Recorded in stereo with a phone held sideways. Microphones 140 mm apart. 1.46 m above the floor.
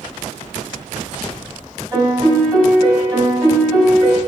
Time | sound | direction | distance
1.9 | a piano | 30° right (ahead or behind) | 4.5 m